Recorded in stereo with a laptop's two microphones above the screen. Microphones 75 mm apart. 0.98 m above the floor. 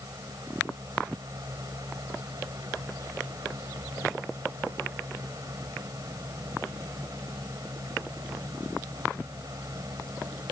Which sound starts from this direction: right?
A fan, at 0.0 s.